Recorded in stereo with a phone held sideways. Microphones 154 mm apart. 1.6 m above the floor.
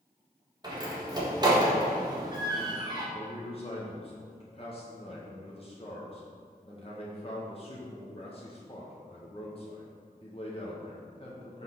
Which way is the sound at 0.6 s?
25° right (ahead or behind).